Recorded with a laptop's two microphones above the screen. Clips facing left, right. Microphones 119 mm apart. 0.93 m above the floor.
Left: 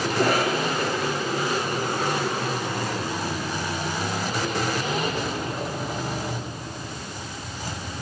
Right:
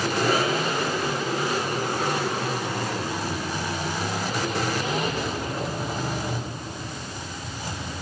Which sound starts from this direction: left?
A cough, at 0.1 s.